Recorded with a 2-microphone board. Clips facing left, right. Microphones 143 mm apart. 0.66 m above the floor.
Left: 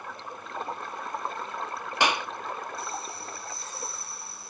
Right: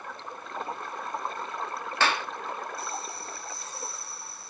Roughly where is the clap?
Centre.